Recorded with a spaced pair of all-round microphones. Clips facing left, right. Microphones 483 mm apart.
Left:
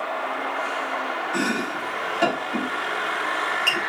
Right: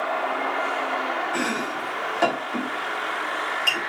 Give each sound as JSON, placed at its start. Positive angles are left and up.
{"t": 1.3, "sound": "chopping", "side_deg": 50, "distance_m": 5.0}